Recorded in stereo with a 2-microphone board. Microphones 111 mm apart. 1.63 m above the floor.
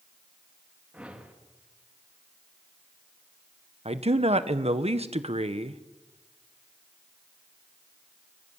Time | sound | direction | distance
0.9 | a whoosh | 10° right (ahead or behind) | 3 m
3.9 | a man speaking | 65° right (ahead or behind) | 1.5 m